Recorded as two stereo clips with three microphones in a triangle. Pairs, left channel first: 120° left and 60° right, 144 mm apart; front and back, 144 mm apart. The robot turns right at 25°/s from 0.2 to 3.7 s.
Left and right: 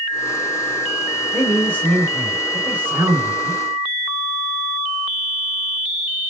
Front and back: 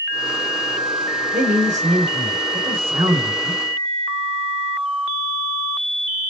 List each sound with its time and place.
1.3 s a man speaking: 170° right, 3 m; by 3.6 s 115° right, 3 m